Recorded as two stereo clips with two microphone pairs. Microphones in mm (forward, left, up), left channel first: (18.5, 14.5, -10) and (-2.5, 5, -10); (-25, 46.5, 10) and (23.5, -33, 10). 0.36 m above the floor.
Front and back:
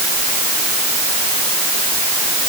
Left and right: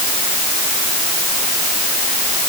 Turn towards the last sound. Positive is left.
No sound to turn to.